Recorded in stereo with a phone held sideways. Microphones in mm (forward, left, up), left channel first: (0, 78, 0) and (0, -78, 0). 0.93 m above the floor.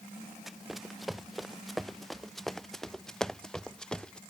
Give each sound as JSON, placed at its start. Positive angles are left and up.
{"t": 0.5, "sound": "running footsteps", "side_deg": 0}